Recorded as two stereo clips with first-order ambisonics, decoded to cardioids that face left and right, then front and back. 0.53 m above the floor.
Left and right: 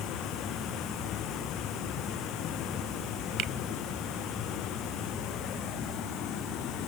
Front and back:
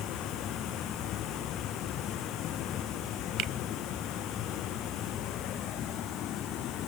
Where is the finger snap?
135° right.